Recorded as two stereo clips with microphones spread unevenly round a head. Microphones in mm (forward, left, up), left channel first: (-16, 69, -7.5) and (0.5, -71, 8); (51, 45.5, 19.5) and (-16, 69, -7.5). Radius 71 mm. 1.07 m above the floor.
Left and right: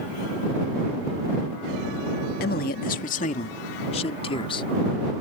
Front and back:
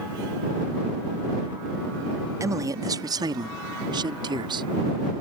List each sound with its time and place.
2.4 s a man speaking: 115° left; by 4.7 s 155° left